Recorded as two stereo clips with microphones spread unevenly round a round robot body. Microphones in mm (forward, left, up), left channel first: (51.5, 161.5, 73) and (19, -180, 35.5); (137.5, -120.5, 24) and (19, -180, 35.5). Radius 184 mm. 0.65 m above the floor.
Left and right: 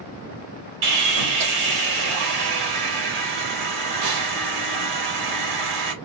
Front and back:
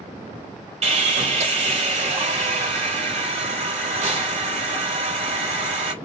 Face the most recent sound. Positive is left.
turn(degrees=-115)